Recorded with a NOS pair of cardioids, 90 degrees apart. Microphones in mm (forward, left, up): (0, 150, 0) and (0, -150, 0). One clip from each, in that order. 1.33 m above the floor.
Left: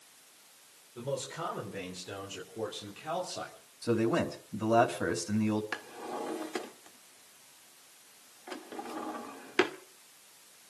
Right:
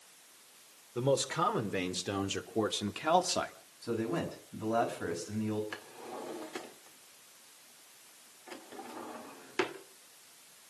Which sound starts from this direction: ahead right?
A man speaking, at 0.9 s.